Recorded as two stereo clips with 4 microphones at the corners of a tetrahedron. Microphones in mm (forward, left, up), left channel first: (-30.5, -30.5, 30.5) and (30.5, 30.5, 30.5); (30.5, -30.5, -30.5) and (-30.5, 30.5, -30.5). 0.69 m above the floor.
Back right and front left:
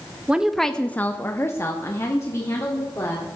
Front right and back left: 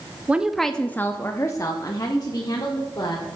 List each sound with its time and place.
0.3 s a woman speaking: 100° left, 0.5 m; by 3.2 s 85° right, 1.8 m